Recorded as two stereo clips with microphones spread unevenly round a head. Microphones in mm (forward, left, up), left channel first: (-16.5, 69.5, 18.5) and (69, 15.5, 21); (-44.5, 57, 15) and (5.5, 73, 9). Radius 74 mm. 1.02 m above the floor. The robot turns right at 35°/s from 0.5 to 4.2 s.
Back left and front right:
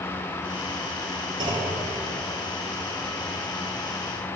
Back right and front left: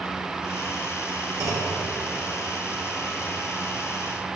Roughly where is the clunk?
Ahead.